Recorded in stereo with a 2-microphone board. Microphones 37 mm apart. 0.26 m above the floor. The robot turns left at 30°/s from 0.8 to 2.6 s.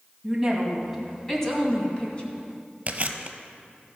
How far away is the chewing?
About 0.8 m.